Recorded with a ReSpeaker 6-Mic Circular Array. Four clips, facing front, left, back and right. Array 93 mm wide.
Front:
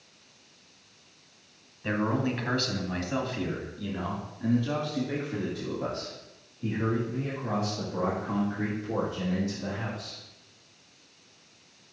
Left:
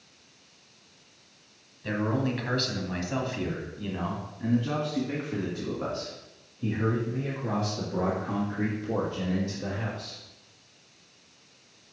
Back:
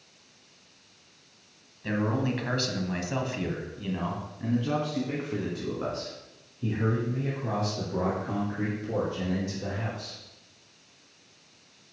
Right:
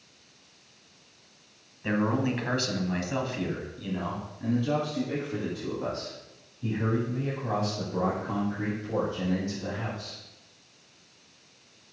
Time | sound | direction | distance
1.8 | a man speaking | 65° right | 1.3 m